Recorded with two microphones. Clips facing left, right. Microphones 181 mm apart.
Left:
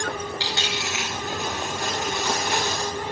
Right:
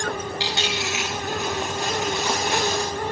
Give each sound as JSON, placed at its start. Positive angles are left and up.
{"t": 0.4, "sound": "a dropped coin", "side_deg": -20, "distance_m": 9.5}